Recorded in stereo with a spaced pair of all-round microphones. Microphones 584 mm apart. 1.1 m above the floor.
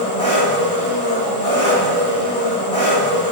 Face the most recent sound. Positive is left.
turn(degrees=10)  # may be behind; listen again after turning